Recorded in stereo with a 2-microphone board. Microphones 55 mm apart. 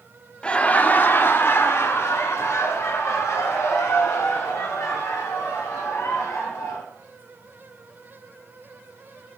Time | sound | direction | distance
0.4 | laughter | 20° left (ahead or behind) | 0.7 m